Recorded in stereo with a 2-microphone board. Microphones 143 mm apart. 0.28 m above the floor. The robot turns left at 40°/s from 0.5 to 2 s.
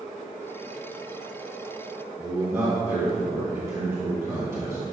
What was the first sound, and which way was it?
A man speaking, 20° right (ahead or behind).